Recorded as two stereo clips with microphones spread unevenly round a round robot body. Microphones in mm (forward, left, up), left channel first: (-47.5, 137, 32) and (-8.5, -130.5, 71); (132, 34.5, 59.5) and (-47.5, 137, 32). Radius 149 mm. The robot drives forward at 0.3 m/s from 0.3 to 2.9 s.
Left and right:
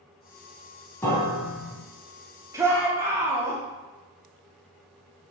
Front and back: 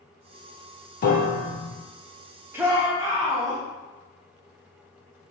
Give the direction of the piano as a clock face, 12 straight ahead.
12 o'clock.